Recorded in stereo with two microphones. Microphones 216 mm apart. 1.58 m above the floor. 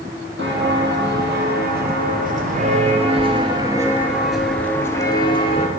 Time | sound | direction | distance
0.4 | footsteps | 55° right (ahead or behind) | 3 m